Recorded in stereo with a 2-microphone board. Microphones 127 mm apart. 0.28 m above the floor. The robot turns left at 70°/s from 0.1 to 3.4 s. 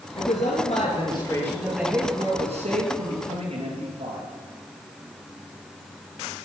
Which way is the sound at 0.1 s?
100° left.